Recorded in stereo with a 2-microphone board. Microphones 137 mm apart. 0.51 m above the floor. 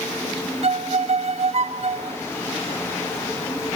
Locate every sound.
0.6 s a violin: 50° right (ahead or behind), 0.7 m